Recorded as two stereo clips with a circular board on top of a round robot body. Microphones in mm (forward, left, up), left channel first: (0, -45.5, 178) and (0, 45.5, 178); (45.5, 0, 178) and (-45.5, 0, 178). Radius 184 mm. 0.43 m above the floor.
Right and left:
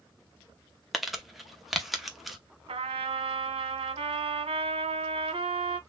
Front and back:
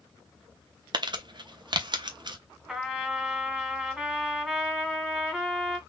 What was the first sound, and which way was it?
Crumpling, straight behind.